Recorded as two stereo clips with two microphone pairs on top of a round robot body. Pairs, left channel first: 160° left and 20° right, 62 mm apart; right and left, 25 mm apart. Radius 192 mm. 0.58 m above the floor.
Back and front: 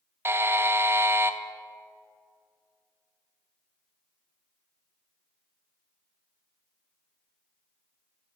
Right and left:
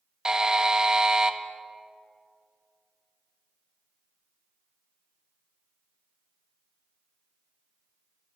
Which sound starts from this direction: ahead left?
A buzzer, at 0.2 s.